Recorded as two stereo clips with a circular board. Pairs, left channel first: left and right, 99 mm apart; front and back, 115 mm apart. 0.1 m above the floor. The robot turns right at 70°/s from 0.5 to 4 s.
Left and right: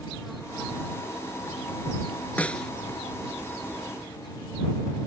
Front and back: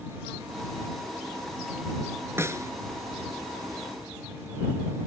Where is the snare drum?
145° left; by 2.7 s 170° left.